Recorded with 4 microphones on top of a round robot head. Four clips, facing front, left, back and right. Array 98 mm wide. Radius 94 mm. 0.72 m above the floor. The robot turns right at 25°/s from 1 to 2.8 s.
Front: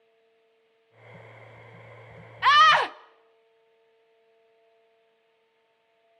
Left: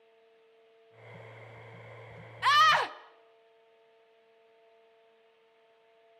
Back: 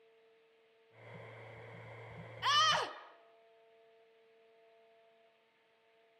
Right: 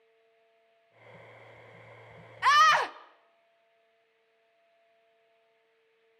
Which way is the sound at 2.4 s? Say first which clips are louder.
Right 2 dB, front 14 dB; 20° right.